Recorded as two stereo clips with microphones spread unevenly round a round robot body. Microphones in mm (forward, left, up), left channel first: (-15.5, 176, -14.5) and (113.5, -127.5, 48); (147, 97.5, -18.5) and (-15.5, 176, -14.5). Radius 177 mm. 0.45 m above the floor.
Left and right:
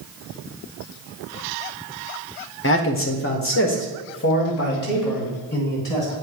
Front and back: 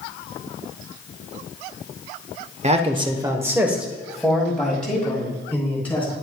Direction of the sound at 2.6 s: 120° left.